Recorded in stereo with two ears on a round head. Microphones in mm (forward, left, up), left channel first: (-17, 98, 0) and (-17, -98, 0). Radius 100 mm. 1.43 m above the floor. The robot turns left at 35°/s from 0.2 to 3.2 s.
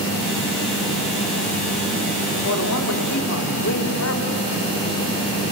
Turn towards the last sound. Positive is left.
turn(degrees=65)  # may be behind; listen again after turning